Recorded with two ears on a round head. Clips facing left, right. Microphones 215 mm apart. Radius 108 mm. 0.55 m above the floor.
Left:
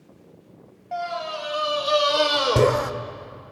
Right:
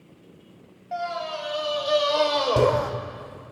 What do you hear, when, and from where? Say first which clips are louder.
0.9 s a scream: left 1 dB; centre (ahead or behind), 3 m; by 2.9 s 35° left (ahead or behind), 1.6 m